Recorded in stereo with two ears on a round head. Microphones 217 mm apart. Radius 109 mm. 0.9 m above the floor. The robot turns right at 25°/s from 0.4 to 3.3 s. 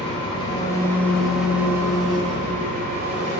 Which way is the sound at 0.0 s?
160° left.